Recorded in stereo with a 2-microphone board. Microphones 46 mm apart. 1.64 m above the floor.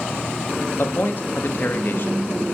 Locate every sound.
0.8 s a man speaking: 50° left (ahead or behind), 0.7 m